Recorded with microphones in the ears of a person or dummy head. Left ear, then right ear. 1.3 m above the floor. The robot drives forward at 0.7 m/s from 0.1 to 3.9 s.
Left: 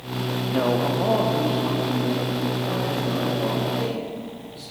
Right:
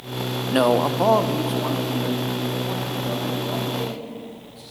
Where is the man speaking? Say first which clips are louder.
Right 4 dB; 70° right (ahead or behind), 0.5 m; by 4.6 s 10° right (ahead or behind), 2.5 m.